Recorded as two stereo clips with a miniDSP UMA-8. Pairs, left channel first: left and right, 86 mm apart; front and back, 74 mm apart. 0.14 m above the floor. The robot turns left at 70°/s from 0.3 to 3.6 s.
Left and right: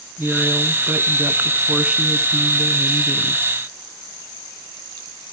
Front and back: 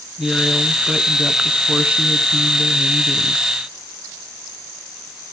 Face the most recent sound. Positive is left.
turn(degrees=100)